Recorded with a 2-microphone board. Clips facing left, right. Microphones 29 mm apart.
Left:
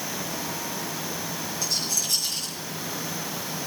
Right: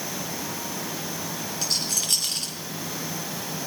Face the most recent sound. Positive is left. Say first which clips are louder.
# right 1 dB
turn(degrees=-70)  # may be behind; listen again after turning